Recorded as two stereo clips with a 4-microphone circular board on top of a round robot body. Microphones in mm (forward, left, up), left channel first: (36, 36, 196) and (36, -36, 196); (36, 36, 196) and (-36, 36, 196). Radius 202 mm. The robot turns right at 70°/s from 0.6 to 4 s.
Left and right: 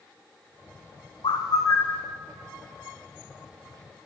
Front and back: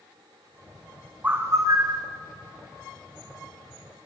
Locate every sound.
1.2 s a bird: 110° left, 1.0 m; by 2.0 s 170° left, 1.0 m